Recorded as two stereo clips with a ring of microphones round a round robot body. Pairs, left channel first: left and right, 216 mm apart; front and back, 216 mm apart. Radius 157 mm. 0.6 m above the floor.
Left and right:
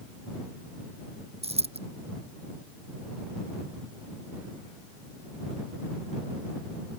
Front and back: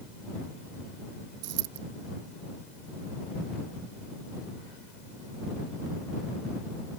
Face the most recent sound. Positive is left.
turn(degrees=-150)